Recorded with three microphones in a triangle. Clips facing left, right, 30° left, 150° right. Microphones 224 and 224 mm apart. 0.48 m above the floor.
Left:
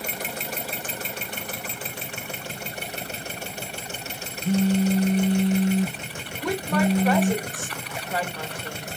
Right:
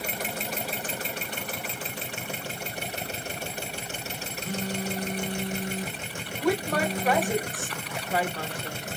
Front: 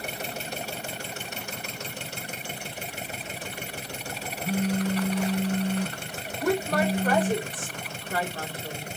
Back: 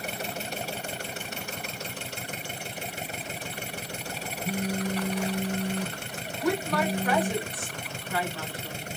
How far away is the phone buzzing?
About 0.7 m.